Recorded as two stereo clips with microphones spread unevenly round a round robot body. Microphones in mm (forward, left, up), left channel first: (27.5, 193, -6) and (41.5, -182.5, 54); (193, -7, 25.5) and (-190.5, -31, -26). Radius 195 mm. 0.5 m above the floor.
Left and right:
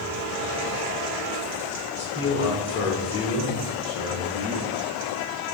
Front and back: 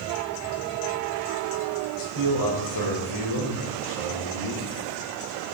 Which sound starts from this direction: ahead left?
A man speaking, at 2.0 s.